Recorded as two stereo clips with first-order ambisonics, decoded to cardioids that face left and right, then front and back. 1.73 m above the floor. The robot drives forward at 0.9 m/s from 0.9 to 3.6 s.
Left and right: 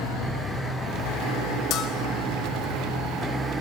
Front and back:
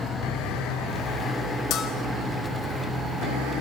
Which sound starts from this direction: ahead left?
A bell, at 1.7 s.